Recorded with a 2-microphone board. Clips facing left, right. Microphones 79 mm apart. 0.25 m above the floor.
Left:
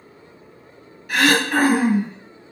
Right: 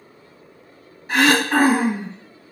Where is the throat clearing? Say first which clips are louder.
Right 1 dB; 30° right (ahead or behind), 1.3 m.